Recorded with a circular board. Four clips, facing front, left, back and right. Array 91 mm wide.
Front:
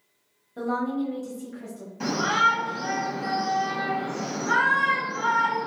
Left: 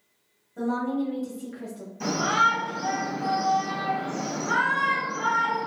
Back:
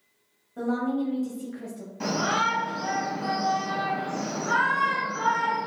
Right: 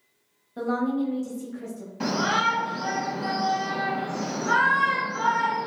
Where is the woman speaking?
70° right, 1.0 m; by 1.9 s 110° left, 1.1 m.